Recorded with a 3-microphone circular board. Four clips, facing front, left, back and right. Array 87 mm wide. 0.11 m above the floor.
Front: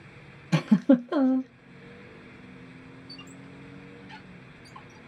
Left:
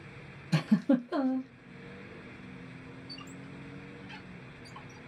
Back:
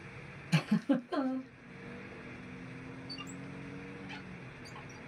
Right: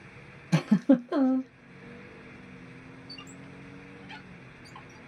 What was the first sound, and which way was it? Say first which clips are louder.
A giggle: right 4 dB, front 10 dB; 35° right.